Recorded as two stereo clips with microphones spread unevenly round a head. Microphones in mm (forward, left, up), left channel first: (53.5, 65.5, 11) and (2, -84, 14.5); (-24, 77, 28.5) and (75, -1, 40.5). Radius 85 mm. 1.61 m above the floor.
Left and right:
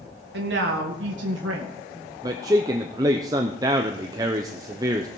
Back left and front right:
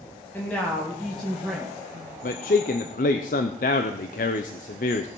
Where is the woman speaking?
140° right, 1.5 m; by 1.8 s 125° right, 2 m.